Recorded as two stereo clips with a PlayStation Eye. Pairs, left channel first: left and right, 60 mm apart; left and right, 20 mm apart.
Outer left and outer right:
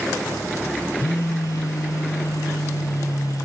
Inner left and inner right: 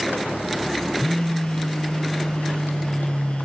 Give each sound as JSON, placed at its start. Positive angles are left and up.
{"t": 1.0, "sound": "a phone buzzing", "side_deg": 65, "distance_m": 1.6}